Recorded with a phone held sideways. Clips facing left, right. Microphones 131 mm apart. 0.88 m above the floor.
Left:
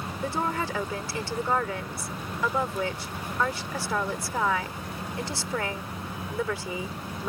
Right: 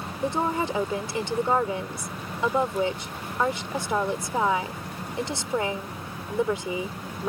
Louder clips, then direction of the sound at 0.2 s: Right 4 dB; 20° right (ahead or behind).